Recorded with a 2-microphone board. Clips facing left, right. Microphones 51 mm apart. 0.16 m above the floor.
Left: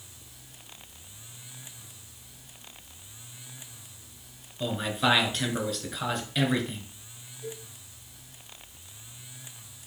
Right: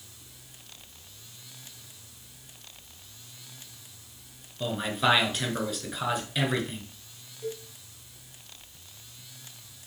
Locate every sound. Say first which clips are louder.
4.6 s a man speaking: even; 5° right (ahead or behind), 1.9 m
7.4 s a cowbell: right 4 dB; 40° right (ahead or behind), 3.5 m